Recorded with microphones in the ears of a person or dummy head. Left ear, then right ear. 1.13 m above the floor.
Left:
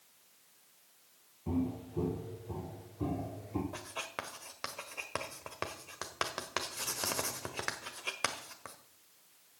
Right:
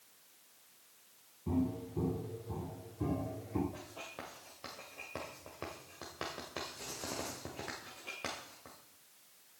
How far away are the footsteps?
About 1.8 m.